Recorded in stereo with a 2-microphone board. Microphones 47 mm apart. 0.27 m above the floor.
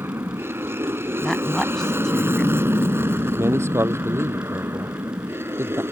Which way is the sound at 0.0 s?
60° right (ahead or behind).